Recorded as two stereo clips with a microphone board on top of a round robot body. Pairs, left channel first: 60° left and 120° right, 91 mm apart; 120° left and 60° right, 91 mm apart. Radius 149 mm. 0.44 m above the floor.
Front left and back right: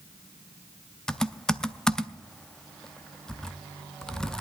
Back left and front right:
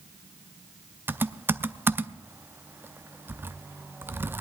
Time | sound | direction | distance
1.1 | typing on a keyboard | 15° right | 0.8 m